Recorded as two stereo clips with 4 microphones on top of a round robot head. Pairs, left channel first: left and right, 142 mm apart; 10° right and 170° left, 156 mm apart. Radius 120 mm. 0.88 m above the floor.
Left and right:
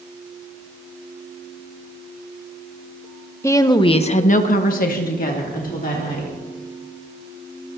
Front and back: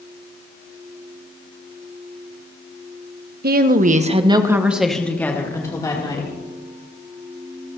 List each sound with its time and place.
3.4 s a woman speaking: 160° left, 1.4 m; by 6.3 s 55° left, 3 m